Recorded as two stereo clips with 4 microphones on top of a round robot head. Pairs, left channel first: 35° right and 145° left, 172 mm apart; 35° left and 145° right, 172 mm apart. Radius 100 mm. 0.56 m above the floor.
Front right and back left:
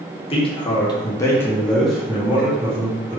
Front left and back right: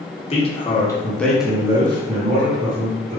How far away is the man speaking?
About 1.0 m.